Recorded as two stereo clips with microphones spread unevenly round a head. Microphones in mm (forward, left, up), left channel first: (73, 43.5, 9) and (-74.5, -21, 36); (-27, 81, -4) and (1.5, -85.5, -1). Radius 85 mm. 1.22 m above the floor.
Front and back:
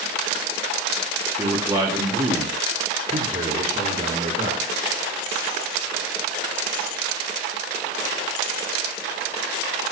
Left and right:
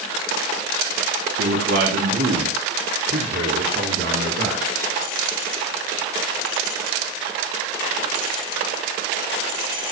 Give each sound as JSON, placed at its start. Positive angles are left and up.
{"t": 1.4, "sound": "a man speaking", "azimuth_deg": -85, "distance_m": 3.0}